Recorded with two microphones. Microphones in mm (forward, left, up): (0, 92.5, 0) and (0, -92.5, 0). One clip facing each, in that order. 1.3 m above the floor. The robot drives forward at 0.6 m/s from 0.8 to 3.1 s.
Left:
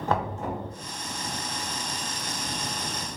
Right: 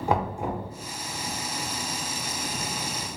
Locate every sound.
0.1 s knocking: 10° right (ahead or behind), 0.7 m